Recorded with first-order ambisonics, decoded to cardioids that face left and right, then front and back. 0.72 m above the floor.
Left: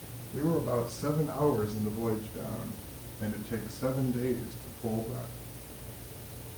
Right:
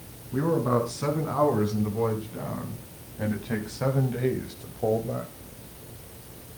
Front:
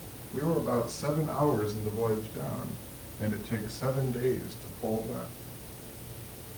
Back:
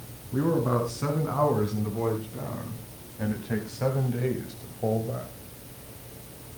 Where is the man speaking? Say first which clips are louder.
Right 5 dB, back 3 dB; 125° right, 6 m; by 5.3 s 110° right, 2.5 m.